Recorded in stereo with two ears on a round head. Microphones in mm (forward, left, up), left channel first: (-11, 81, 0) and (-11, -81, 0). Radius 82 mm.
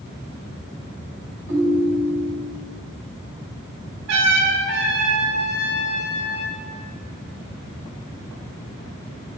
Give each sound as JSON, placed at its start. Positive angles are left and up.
{"t": 1.5, "sound": "a ringtone", "side_deg": -75, "distance_m": 1.8}
{"t": 4.1, "sound": "a trumpet", "side_deg": -75, "distance_m": 1.1}